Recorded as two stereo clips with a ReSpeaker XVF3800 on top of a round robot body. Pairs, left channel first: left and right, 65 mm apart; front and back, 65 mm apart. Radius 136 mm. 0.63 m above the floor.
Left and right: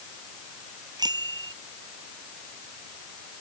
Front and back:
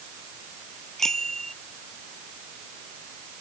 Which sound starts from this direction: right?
A bicycle bell, at 1.0 s.